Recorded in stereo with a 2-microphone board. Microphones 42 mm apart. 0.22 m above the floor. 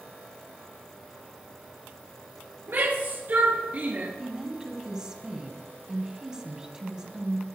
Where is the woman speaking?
15° right (ahead or behind), 1.8 m.